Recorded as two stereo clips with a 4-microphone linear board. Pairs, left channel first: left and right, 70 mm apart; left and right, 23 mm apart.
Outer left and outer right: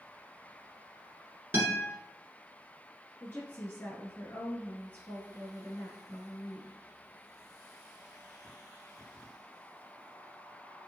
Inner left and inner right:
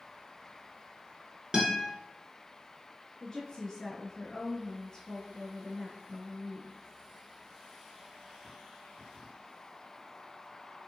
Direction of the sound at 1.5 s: 35° right (ahead or behind).